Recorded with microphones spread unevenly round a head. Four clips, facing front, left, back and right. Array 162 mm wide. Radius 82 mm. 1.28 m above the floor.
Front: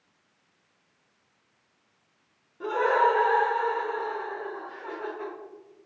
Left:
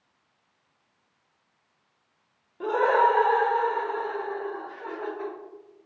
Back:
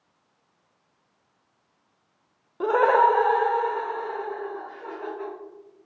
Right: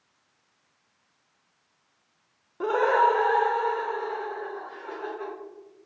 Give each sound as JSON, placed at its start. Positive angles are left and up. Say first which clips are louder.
{"t": 2.6, "sound": "laughter", "louder": "even, back 5 dB", "azimuth_deg": -160, "distance_m": 0.6}